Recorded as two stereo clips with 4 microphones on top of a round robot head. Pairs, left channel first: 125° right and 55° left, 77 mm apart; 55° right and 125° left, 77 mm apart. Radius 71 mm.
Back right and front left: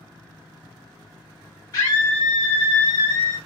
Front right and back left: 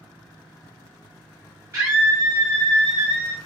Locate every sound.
1.7 s a scream: 170° right, 1.3 m; by 3.4 s 115° right, 1.4 m